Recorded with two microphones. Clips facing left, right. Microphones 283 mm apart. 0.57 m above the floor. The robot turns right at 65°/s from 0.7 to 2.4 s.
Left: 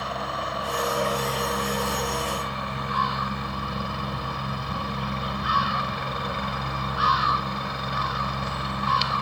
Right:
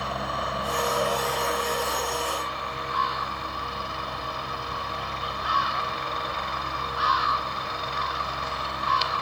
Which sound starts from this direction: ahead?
A helicopter, at 0.0 s.